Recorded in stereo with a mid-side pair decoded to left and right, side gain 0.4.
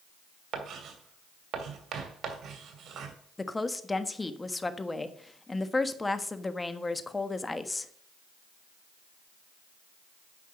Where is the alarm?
I don't hear an alarm.